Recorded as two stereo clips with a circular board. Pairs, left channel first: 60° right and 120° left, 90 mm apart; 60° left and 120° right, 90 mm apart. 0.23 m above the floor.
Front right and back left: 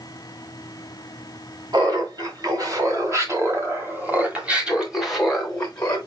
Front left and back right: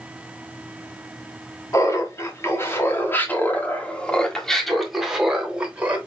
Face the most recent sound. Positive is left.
turn(degrees=-105)